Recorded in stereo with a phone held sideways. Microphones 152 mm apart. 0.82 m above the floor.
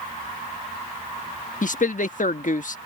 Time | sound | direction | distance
1.6 | a man speaking | 60° left (ahead or behind) | ?